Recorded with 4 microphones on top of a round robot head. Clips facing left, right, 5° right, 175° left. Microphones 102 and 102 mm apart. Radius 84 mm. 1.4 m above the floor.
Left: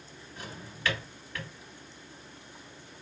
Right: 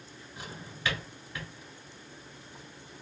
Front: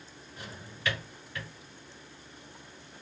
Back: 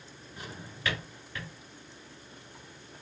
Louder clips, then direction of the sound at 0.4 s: Left 1 dB, back 2 dB; 165° right.